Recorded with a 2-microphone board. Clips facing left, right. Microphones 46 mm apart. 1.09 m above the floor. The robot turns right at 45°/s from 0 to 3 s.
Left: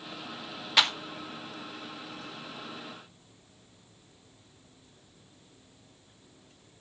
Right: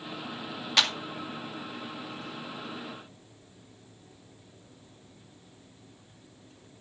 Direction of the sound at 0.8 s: 5° left (ahead or behind).